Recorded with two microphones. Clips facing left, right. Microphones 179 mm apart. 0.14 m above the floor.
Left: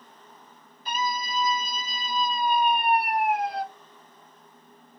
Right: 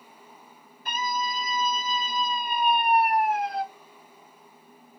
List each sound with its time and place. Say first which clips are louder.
0.8 s a scream: even; 55° right (ahead or behind), 2.5 m; by 3.6 s 30° left (ahead or behind), 1.8 m